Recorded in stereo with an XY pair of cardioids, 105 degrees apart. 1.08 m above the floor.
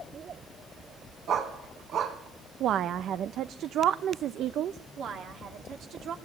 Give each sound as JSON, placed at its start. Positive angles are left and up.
{"t": 1.3, "sound": "a dog barking", "azimuth_deg": -65, "distance_m": 3.0}
{"t": 2.6, "sound": "a woman speaking", "azimuth_deg": -70, "distance_m": 0.7}
{"t": 5.0, "sound": "a woman speaking", "azimuth_deg": -70, "distance_m": 3.0}